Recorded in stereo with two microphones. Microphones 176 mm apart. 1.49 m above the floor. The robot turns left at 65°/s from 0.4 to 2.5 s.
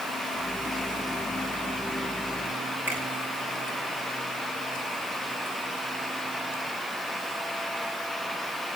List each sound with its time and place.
2.9 s a finger snap: 10° right (ahead or behind), 8 m